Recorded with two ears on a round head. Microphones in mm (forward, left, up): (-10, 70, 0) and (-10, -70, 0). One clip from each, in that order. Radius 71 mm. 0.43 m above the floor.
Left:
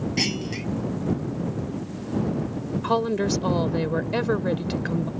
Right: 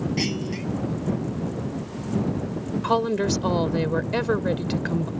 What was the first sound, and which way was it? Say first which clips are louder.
A clunk: left 6 dB; 25° left (ahead or behind).